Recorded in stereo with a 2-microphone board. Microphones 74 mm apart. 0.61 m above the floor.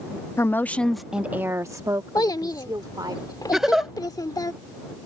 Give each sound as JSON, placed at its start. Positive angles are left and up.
{"t": 0.4, "sound": "a woman speaking", "side_deg": 40}
{"t": 2.1, "sound": "a child speaking", "side_deg": 65}
{"t": 3.5, "sound": "a giggle", "side_deg": -5}